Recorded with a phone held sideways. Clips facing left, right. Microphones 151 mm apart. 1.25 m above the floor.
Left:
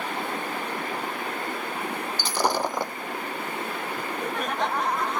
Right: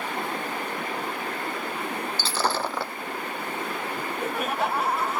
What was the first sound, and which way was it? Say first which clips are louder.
Breaking glass: left 3 dB; 15° left (ahead or behind).